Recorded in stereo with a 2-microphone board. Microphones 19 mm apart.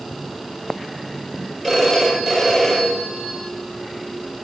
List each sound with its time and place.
1.6 s a phone ringing: 15° left (ahead or behind), 6.5 m